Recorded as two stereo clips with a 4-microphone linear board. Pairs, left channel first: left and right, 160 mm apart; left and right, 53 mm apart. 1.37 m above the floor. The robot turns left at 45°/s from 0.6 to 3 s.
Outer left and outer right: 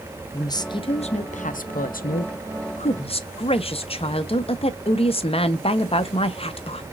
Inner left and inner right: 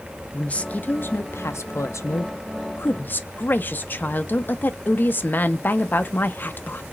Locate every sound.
0.3 s a woman speaking: 150° left, 0.6 m; by 6.8 s 45° left, 0.6 m